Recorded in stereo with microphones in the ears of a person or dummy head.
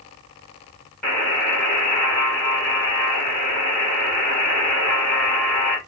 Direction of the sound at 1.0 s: Centre (ahead or behind).